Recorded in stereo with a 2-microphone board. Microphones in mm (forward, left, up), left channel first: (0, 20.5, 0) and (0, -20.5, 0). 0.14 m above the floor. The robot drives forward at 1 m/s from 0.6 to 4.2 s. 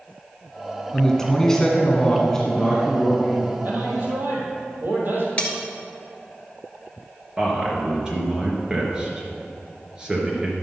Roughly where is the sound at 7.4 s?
Centre.